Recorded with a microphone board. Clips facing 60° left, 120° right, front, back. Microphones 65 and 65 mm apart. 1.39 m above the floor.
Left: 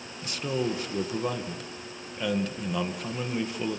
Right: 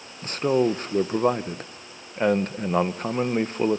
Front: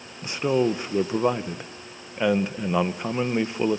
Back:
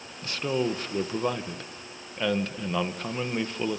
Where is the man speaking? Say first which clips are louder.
Right 8 dB, front 5 dB; 70° right, 1.0 m.